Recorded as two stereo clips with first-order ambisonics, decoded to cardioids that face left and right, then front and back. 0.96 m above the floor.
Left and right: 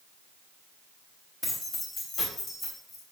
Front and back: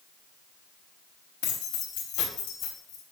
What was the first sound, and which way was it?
Keys jangling, 20° left.